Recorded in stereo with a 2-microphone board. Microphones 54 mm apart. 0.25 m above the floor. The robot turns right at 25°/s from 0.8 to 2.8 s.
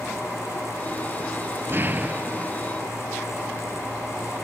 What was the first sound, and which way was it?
An explosion, 45° right (ahead or behind).